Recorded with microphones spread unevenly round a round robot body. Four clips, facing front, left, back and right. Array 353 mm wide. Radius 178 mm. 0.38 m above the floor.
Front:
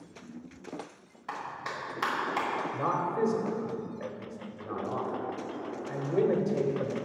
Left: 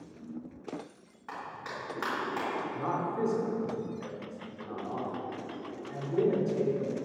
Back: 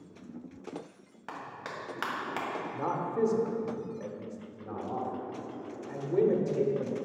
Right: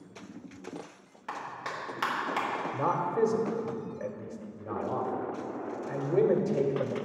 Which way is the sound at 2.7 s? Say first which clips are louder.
Right 7 dB, even; 110° right.